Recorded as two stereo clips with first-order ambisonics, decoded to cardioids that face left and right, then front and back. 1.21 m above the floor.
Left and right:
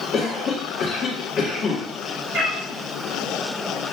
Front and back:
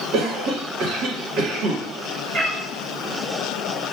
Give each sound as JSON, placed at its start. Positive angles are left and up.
{"t": 0.1, "sound": "a cough", "azimuth_deg": 145, "distance_m": 1.1}
{"t": 2.3, "sound": "a cat meowing", "azimuth_deg": -115, "distance_m": 2.5}